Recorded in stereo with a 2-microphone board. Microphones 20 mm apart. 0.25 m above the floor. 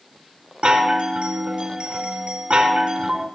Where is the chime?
55° right (ahead or behind), 2.5 m.